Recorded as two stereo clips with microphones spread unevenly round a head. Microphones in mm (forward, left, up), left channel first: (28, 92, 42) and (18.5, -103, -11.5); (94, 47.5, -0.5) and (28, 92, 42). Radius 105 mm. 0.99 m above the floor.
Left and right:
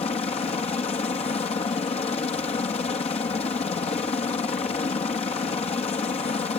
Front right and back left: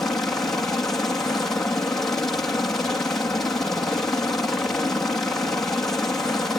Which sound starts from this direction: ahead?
A helicopter, at 0.0 s.